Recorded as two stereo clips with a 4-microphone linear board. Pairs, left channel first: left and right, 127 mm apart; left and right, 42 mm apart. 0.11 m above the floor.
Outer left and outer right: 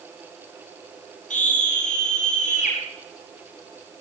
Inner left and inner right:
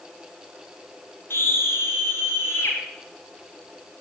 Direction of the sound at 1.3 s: 75° left (ahead or behind).